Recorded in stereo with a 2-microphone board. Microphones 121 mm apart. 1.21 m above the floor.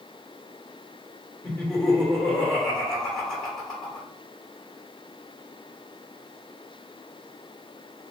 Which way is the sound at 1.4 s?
10° left (ahead or behind).